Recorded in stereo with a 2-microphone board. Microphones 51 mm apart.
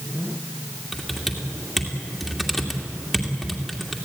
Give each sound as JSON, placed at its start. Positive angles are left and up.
{"t": 0.9, "sound": "typing on a keyboard", "side_deg": 0, "distance_m": 2.5}